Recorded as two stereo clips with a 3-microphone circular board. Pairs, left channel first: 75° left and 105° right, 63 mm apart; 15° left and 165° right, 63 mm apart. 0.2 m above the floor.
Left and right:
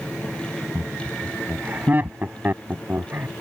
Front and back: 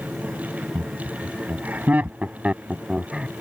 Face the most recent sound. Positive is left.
turn(degrees=-85)